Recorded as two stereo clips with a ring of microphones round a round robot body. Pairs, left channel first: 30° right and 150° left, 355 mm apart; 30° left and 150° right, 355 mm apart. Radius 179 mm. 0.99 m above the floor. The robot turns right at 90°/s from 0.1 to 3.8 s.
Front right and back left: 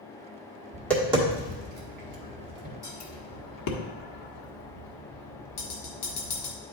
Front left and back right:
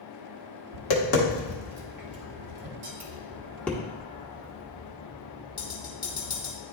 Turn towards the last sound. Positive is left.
turn(degrees=-45)